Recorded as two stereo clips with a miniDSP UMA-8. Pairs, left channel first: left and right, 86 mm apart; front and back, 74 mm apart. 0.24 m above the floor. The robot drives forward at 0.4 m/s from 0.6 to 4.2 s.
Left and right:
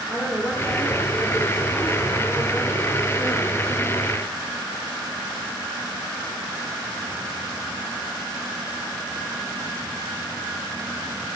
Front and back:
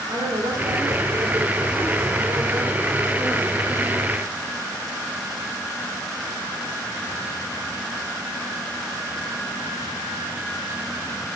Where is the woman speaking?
165° right, 3 m; by 4.1 s 170° right, 4 m.